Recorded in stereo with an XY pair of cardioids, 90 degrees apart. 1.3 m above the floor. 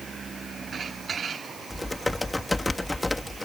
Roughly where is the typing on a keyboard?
Ahead.